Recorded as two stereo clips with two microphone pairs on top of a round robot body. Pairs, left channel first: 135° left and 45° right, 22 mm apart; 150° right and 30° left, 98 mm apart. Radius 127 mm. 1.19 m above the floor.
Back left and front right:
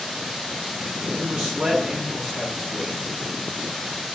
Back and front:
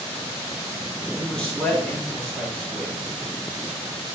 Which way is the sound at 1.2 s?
65° right.